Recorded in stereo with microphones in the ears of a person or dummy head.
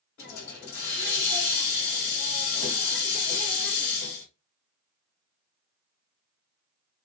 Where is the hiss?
55° left (ahead or behind), 2.5 m.